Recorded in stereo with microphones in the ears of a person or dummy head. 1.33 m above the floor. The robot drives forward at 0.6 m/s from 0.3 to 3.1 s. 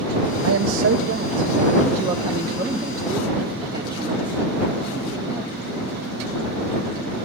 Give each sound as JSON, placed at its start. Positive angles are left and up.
{"t": 0.4, "sound": "a man speaking", "side_deg": -70, "distance_m": 0.5}